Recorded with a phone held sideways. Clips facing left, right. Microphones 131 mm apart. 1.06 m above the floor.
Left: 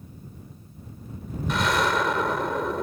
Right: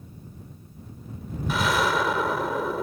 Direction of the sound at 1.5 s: 5° right (ahead or behind).